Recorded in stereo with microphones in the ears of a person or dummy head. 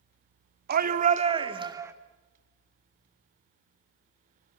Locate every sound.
0.7 s a shout: 60° right (ahead or behind), 2.0 m; by 1.9 s 20° right (ahead or behind), 2.5 m